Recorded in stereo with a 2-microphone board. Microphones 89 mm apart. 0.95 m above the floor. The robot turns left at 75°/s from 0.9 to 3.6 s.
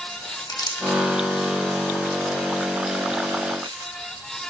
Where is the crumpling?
55° left (ahead or behind), 1.7 m; by 3.9 s 75° right (ahead or behind), 1.7 m.